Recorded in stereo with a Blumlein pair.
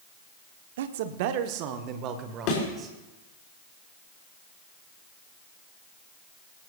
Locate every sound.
0.8 s a man speaking: 60° right, 1.2 m; by 2.9 s 25° right, 2 m
2.5 s a thud: 40° left, 5 m